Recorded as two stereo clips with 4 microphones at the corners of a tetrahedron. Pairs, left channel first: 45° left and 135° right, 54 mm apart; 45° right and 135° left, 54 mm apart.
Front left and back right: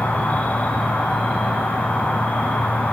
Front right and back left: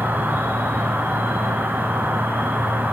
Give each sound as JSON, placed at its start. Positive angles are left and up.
{"t": 0.0, "sound": "an insect", "azimuth_deg": 95, "distance_m": 1.5}